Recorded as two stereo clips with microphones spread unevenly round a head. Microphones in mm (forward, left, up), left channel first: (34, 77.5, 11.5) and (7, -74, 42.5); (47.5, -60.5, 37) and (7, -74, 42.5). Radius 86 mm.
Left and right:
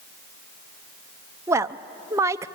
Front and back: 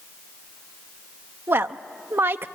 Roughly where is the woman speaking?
Behind.